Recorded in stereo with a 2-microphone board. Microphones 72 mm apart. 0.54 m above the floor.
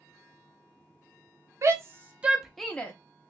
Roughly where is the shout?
Right.